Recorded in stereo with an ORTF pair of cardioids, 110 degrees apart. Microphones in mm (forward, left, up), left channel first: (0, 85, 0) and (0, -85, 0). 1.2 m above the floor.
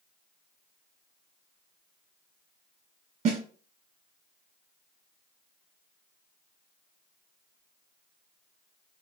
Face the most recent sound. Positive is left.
turn(degrees=-45)